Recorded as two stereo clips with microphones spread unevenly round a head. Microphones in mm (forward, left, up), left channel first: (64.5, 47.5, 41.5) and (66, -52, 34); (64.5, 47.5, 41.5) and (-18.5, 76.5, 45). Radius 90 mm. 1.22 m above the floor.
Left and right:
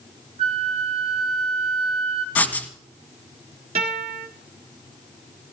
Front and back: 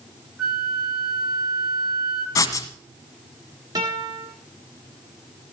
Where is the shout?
I don't hear a shout.